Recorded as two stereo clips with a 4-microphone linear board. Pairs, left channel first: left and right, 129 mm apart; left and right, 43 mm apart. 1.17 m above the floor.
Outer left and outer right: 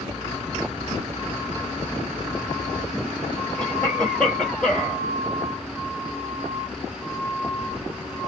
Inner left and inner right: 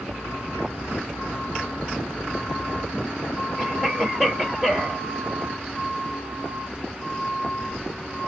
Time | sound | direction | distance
3.6 | a cough | 10° left (ahead or behind) | 2 m